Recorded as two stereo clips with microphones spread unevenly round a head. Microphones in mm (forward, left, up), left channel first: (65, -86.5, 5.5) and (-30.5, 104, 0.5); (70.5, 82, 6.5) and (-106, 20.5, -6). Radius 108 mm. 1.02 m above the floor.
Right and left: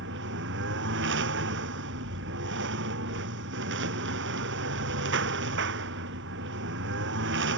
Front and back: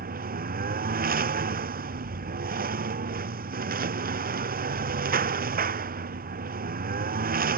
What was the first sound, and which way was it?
A lawn mower, 160° left.